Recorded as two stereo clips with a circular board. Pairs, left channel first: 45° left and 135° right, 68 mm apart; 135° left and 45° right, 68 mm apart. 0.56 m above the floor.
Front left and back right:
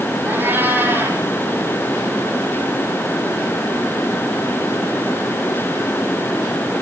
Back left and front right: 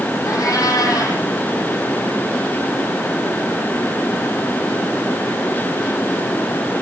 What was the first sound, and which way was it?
A cat meowing, 165° left.